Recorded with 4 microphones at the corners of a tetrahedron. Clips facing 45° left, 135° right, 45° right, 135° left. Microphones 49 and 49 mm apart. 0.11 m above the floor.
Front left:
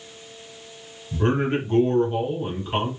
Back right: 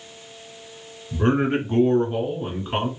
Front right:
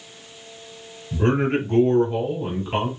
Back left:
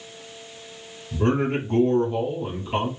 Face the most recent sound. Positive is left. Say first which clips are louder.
# back right 2 dB, front right 2 dB
turn(degrees=-90)